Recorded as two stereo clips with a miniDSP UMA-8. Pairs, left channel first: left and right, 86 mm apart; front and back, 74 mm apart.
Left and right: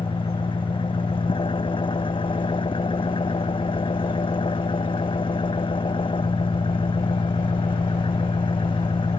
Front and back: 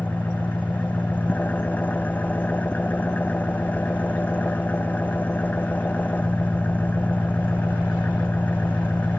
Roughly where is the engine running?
Left.